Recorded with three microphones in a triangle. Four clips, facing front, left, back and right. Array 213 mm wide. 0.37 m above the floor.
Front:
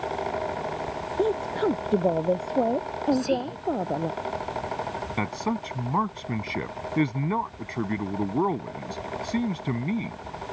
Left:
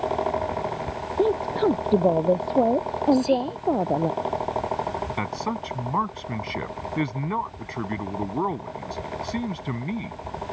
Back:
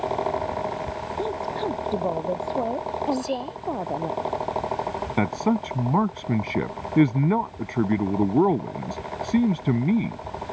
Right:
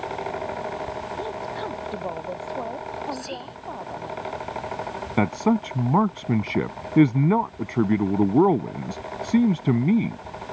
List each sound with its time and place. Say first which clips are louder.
1.2 s a woman speaking: left 13 dB, front 4 dB; 65° left; by 4.1 s 80° left
3.1 s whispering: left 13 dB, front 2 dB; 15° left
5.2 s a man speaking: right 7 dB, back 7 dB; 120° right